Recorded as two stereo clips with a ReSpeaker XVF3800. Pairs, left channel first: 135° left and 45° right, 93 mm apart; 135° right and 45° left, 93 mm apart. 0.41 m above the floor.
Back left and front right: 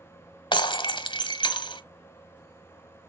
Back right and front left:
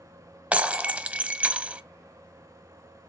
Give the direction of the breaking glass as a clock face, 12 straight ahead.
8 o'clock.